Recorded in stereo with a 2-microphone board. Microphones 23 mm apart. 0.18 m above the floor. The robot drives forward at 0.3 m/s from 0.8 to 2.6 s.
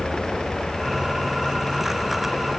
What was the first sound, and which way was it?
Only background noise.